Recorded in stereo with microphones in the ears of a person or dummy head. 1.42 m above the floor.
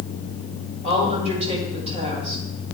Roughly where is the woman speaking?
Right.